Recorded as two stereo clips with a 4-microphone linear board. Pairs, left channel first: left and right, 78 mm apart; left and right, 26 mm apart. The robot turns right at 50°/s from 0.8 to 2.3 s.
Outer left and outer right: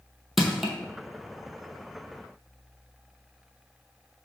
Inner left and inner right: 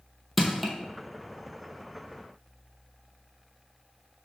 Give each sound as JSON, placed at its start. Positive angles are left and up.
{"t": 0.4, "sound": "crushing", "side_deg": 0, "distance_m": 0.8}